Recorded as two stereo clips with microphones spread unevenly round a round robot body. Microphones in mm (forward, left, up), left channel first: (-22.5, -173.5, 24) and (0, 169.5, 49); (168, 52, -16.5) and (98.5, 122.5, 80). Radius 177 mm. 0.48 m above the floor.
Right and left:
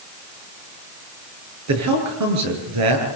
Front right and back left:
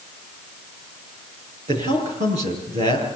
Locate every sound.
1.7 s a man speaking: 130° left, 9.5 m